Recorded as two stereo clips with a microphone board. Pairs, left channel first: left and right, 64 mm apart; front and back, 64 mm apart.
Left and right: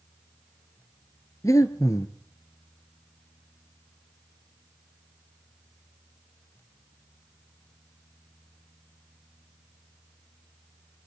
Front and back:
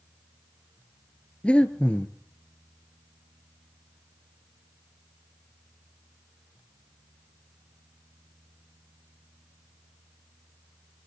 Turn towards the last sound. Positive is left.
turn(degrees=70)